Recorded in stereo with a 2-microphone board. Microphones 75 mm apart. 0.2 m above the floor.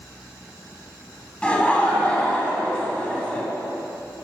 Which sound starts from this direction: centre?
Laughter, at 1.4 s.